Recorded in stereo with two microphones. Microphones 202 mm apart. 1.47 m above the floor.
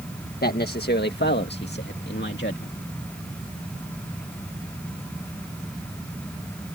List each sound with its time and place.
0.4 s a man speaking: 50° left (ahead or behind); by 2.7 s 60° left (ahead or behind)